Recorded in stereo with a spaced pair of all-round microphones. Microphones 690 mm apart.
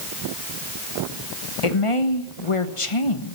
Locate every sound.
1.6 s a woman speaking: 45° left (ahead or behind), 1.5 m